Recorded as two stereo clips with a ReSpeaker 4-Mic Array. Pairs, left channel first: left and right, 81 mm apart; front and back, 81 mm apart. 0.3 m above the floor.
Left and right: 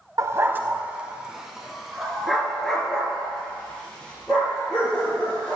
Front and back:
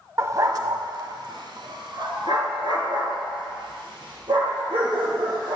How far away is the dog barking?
About 0.6 m.